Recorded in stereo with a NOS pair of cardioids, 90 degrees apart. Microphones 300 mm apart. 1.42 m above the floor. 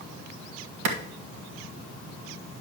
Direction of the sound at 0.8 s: 70° right.